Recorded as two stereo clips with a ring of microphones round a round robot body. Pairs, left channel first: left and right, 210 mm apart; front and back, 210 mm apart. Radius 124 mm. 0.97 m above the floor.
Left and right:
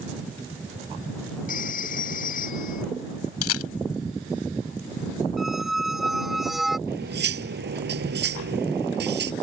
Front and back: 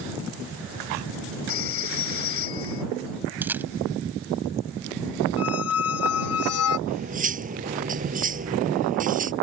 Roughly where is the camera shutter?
Left.